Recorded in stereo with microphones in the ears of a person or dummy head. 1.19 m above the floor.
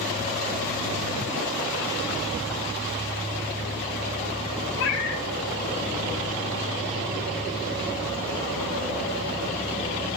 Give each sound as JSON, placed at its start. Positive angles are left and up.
{"t": 4.8, "sound": "a cat meowing", "side_deg": 70, "distance_m": 3.5}